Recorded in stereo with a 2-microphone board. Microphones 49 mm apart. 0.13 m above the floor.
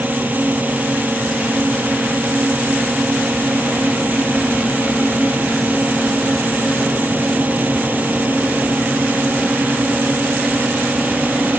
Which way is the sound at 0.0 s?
40° right (ahead or behind).